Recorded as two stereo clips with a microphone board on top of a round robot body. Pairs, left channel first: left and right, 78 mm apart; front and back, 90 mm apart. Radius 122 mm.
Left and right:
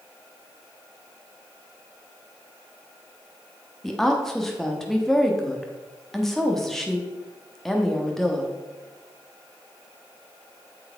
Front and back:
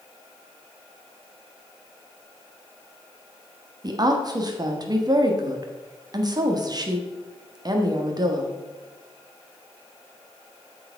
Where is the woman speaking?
175° left, 1.7 m.